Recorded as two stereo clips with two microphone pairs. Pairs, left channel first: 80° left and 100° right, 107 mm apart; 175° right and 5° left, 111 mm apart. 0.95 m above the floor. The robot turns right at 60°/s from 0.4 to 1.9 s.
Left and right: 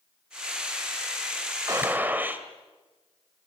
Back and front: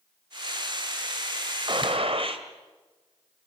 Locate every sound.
1.7 s a gunshot: 45° right, 2 m; by 2.4 s 30° right, 2 m